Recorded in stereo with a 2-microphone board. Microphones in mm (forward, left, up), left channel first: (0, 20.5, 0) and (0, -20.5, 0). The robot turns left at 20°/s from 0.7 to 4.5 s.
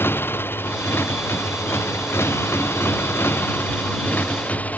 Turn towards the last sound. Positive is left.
turn(degrees=40)